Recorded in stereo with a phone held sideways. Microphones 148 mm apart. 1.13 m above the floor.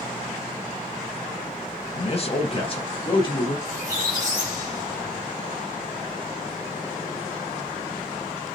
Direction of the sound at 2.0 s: 45° left (ahead or behind).